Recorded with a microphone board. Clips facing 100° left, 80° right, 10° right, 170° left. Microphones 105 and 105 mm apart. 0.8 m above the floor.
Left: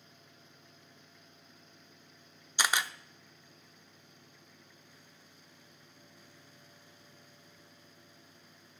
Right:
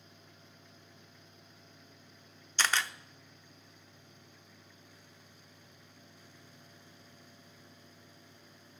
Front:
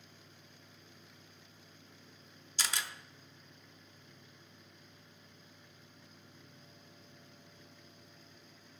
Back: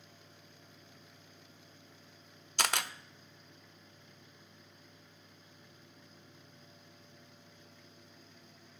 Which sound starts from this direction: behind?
A camera shutter, at 2.6 s.